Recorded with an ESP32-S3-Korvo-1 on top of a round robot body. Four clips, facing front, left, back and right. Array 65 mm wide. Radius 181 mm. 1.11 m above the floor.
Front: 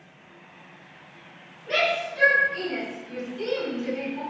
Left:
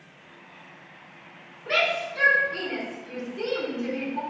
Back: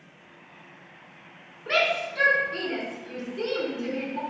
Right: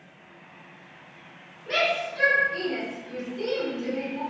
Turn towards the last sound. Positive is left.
turn(degrees=145)